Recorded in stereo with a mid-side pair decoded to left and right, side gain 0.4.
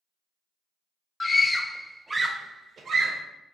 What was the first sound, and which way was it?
A scream, 40° left.